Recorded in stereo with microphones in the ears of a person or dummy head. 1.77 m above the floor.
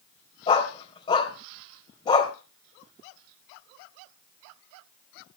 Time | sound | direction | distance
0.5 | a dog barking | 35° left (ahead or behind) | 2 m